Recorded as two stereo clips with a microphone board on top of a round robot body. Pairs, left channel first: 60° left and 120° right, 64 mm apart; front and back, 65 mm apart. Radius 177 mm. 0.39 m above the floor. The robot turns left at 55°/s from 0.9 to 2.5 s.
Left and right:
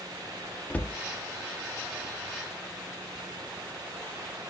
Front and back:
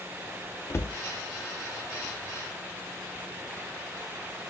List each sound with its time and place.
0.7 s a cupboard door: 10° left, 0.5 m; by 1.0 s 5° left, 0.5 m